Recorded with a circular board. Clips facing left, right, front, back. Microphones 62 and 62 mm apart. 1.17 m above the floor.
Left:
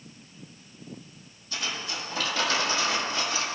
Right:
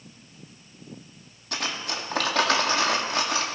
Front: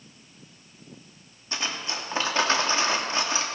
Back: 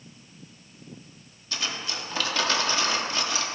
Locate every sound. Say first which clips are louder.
1.5 s cutlery clinking: right 3 dB, front 1 dB; 65° right, 1.3 m